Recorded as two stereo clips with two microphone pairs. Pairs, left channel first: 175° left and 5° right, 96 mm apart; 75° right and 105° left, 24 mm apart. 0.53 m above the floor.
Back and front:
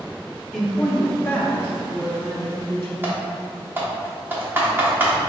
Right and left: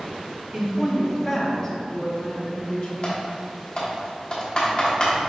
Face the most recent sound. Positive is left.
turn(degrees=-55)